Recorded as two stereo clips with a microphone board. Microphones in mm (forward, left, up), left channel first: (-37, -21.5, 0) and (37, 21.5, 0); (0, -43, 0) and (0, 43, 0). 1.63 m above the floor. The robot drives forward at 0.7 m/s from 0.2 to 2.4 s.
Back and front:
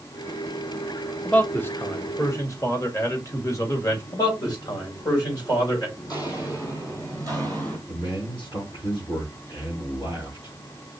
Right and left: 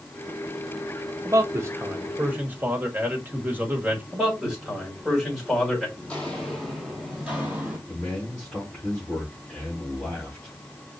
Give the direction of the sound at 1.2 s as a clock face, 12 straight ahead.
7 o'clock.